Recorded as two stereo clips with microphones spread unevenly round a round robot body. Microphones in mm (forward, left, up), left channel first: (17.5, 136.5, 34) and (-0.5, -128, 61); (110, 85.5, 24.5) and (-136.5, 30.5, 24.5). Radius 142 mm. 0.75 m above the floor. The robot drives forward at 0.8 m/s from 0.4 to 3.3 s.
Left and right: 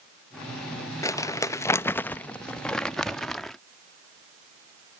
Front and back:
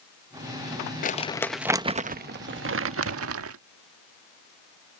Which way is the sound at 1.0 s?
25° left.